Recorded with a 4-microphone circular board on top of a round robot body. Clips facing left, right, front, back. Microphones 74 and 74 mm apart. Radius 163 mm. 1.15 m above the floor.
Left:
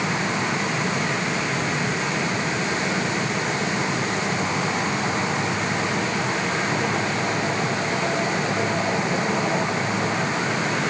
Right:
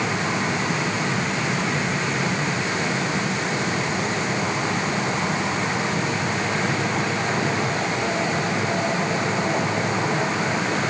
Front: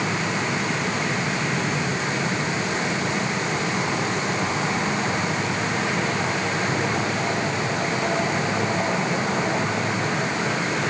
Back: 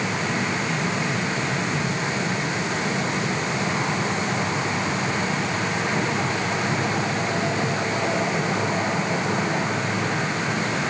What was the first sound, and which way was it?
Only background noise.